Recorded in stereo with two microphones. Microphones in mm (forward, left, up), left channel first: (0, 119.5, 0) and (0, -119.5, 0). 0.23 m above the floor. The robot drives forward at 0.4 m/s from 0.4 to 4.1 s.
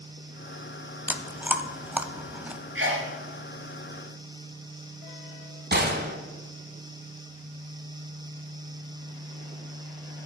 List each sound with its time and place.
1.1 s chewing: 5° right (ahead or behind), 0.6 m
2.8 s a sneeze: 55° right (ahead or behind), 3.5 m
5.7 s a gunshot: 45° right (ahead or behind), 1.4 m